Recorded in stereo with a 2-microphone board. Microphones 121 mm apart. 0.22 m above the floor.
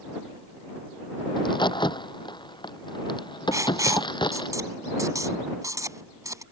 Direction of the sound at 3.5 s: 30° right (ahead or behind).